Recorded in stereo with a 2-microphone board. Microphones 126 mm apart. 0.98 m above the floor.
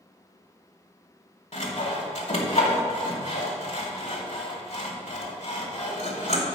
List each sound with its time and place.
1.5 s sawing: 65° left (ahead or behind), 1.4 m